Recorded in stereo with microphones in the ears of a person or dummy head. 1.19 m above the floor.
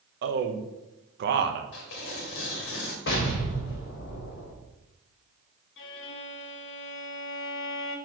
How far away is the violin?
About 1.1 m.